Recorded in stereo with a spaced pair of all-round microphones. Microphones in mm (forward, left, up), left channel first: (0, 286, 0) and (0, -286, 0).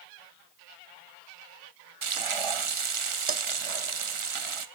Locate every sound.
2.0 s frying: 60° right (ahead or behind), 0.7 m